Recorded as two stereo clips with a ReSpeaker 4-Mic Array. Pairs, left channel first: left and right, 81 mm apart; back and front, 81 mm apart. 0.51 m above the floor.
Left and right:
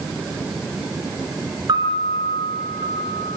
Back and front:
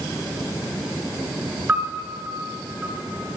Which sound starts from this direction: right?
A piano, at 1.7 s.